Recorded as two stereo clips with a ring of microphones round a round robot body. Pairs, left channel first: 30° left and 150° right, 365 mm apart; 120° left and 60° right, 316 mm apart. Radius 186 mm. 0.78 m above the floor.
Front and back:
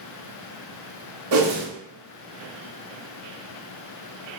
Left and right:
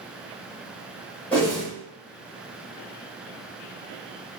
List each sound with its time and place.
1.3 s a whoosh: 155° right, 0.9 m